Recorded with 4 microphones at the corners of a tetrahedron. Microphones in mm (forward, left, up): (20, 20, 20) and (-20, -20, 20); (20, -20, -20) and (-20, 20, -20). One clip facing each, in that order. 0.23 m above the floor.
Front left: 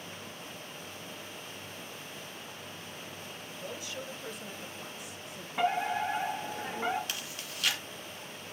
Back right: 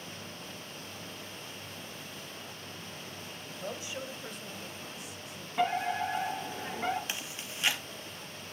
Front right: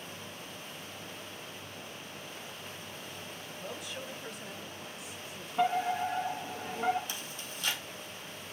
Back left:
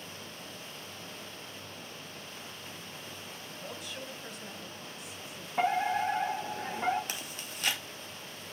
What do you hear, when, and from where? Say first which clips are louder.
3.6 s a woman speaking: back right 2 dB, front right 1 dB; 130° right, 1.5 m; by 5.5 s 45° left, 1.9 m
5.6 s a fire alarm: even, back left 1 dB; 125° left, 5.5 m
7.1 s chewing: back right 1 dB, back left 1 dB; 160° left, 2 m